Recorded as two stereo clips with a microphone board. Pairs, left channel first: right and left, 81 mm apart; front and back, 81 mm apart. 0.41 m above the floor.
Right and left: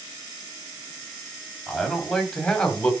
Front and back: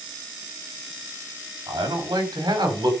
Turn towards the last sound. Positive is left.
turn(degrees=-165)